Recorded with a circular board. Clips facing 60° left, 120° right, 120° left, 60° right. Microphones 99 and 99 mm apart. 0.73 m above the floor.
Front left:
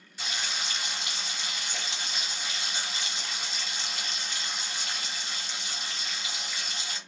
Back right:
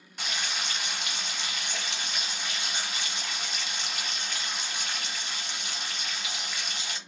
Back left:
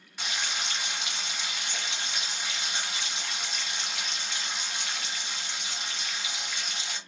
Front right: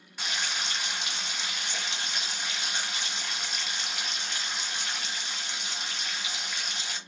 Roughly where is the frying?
Behind right.